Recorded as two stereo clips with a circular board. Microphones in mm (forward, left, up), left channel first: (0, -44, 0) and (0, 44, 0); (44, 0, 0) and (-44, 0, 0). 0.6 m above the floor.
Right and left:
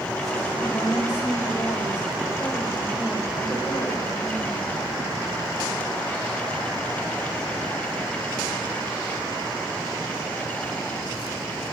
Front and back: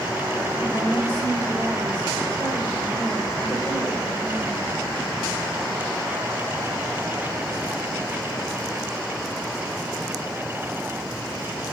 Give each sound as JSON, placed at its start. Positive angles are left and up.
{"t": 0.6, "sound": "a woman speaking", "azimuth_deg": -35, "distance_m": 2.0}